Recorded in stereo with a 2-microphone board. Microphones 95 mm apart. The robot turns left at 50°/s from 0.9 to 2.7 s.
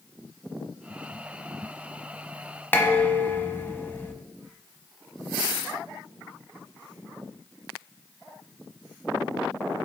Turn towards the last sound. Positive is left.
turn(degrees=25)  # may be behind; listen again after turning